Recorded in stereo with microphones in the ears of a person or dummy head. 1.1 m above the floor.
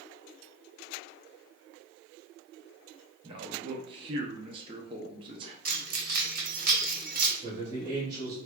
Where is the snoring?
No snoring in this recording.